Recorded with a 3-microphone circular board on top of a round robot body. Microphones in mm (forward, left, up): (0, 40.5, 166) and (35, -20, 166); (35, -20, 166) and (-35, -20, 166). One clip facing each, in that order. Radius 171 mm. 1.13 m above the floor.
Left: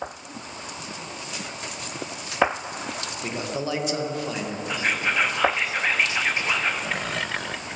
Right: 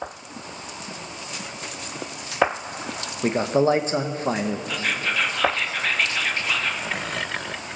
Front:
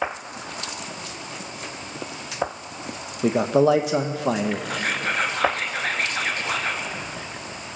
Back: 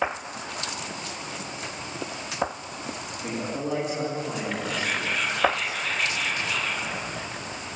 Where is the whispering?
45° left, 2.5 m.